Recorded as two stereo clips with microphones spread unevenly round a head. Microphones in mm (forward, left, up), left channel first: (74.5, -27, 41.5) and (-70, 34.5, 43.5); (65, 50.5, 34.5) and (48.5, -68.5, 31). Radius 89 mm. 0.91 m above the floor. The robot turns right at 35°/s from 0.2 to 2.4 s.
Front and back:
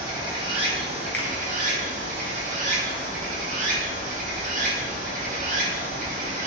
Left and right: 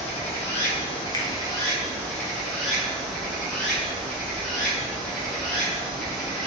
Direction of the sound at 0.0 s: 95° left.